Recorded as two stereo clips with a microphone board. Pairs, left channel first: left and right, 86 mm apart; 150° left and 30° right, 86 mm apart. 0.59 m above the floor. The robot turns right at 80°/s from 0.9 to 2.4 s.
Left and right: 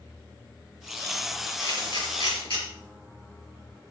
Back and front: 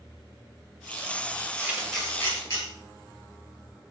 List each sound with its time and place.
1.6 s a camera shutter: 35° left, 6 m; by 2.6 s 100° left, 6 m